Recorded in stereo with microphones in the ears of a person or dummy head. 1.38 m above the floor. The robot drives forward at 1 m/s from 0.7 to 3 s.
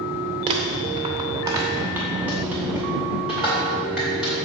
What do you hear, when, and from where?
0.5 s crumpling: 25° right (ahead or behind), 0.8 m; by 4.3 s 10° right (ahead or behind), 2.5 m